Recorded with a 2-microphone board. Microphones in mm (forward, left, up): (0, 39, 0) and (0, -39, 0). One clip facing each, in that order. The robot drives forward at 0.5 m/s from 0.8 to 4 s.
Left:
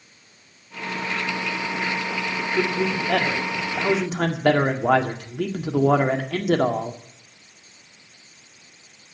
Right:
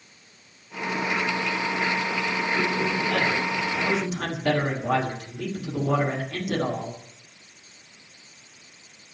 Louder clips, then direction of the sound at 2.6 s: Left 5 dB; 70° left (ahead or behind).